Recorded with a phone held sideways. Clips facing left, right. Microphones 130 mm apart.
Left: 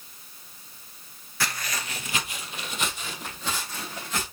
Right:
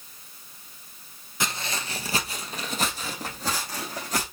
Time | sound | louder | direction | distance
1.4 | footsteps | right 1 dB | 20° right (ahead or behind) | 0.9 m